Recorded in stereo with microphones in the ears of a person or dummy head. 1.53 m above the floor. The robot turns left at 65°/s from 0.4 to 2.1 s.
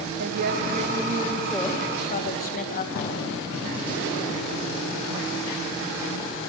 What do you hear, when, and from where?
0.2 s a woman speaking: 120° right, 1.7 m; by 2.9 s 130° left, 1.7 m
3.0 s a thud: 65° left (ahead or behind), 5 m